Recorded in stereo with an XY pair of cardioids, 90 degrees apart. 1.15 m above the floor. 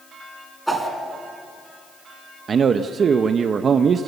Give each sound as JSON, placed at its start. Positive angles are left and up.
{"t": 0.7, "sound": "a whoosh", "azimuth_deg": -15, "distance_m": 5.0}
{"t": 2.5, "sound": "a man speaking", "azimuth_deg": -55, "distance_m": 0.9}